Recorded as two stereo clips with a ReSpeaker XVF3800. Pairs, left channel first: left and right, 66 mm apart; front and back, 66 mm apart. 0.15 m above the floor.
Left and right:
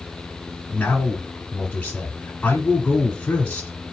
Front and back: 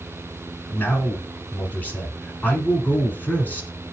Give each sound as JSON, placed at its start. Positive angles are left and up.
{"t": 0.7, "sound": "a man speaking", "azimuth_deg": 40, "distance_m": 1.4}